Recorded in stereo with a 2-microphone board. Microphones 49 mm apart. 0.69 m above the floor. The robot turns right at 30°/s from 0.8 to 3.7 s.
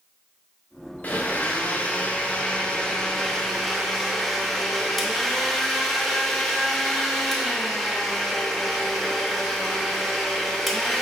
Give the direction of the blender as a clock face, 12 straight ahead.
9 o'clock.